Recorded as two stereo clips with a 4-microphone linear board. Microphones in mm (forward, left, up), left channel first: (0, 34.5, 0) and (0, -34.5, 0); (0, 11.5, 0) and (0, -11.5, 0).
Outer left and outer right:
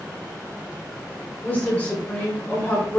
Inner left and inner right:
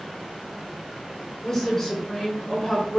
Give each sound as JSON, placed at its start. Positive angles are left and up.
{"t": 1.4, "sound": "a woman speaking", "side_deg": 25, "distance_m": 3.5}